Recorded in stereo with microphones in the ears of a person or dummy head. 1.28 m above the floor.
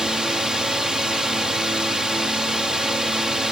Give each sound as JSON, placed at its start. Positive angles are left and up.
{"t": 0.0, "sound": "a drone", "side_deg": -5}